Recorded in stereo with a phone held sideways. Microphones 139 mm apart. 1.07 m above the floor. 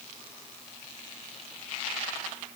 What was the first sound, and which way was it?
Only background noise.